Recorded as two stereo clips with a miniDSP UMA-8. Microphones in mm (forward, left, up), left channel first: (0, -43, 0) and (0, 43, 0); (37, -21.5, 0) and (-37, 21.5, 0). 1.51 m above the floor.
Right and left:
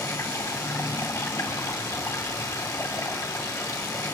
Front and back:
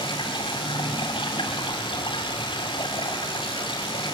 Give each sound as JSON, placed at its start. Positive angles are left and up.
{"t": 0.0, "sound": "running water", "azimuth_deg": -40, "distance_m": 4.0}